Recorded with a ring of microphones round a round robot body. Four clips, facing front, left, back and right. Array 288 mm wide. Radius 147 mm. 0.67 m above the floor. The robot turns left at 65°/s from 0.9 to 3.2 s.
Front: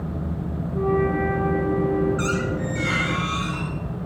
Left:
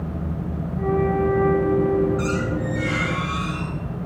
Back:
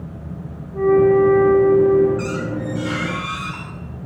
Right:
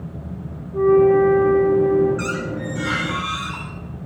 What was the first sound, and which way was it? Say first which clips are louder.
A flute: right 9 dB, back 9 dB; 105° right.